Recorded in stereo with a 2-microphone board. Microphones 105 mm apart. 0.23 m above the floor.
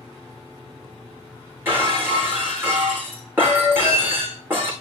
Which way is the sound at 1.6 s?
20° right (ahead or behind).